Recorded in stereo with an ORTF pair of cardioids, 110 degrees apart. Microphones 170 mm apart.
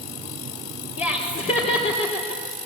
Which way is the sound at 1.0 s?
40° left.